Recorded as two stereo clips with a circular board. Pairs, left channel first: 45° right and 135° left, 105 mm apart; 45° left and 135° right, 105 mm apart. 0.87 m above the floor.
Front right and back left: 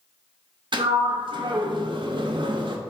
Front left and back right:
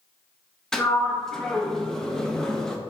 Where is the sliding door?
130° left, 0.7 m.